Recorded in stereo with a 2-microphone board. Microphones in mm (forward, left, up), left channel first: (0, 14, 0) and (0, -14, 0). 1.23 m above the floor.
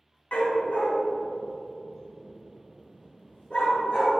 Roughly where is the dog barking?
Left.